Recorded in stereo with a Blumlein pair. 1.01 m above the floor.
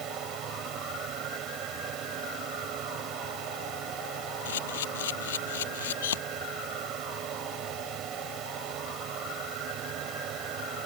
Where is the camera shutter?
60° left.